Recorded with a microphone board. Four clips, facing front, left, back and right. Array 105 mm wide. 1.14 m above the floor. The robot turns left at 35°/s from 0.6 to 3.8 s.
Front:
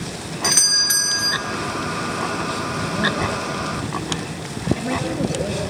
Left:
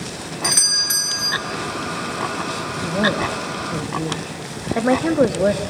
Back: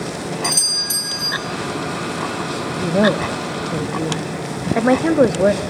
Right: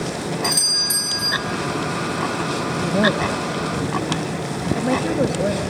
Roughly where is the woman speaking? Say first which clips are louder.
Right 1 dB, back 8 dB; behind.